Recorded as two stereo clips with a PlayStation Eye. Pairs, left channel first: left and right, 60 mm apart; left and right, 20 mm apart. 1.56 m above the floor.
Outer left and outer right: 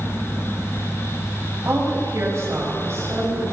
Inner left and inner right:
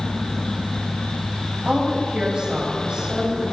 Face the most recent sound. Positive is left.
turn(degrees=-45)  # may be behind; listen again after turning